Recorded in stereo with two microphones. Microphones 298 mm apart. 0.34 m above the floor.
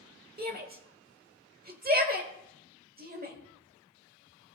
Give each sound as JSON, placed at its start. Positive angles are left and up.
{"t": 0.4, "sound": "a shout", "side_deg": -30, "distance_m": 0.9}